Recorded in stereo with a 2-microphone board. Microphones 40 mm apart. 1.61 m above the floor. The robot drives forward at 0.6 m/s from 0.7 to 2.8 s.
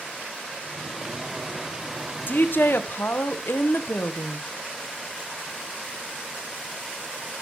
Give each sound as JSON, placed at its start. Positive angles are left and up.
{"t": 2.3, "sound": "a woman speaking", "side_deg": 55, "distance_m": 1.3}